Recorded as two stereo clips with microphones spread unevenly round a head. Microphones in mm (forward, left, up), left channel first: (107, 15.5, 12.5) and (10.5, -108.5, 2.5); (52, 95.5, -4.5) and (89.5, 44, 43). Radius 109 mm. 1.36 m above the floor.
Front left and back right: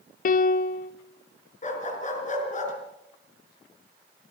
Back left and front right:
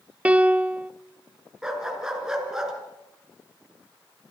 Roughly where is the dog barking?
Ahead.